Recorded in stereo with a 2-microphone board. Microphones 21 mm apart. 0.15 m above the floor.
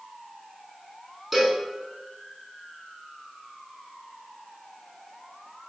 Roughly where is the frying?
No frying in this recording.